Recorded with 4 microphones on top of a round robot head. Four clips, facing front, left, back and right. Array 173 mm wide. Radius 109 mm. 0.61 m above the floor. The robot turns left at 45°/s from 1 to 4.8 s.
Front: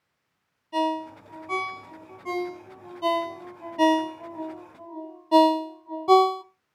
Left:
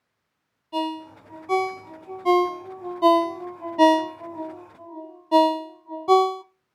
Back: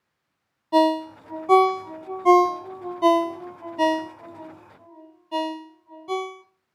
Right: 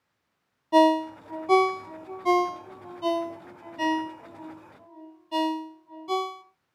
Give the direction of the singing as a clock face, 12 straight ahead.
No singing in this recording.